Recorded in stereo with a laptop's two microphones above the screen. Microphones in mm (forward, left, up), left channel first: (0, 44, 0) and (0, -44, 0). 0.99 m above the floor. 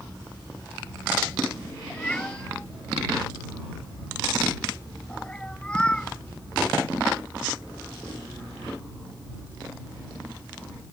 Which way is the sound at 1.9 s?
15° left (ahead or behind).